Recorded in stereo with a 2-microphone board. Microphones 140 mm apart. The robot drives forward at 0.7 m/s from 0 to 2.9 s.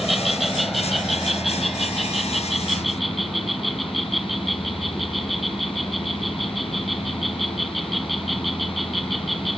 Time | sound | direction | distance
0.0 | an insect | centre (ahead or behind) | ?